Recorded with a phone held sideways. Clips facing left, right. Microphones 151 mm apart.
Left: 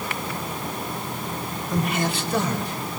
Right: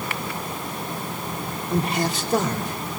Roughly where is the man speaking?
Right.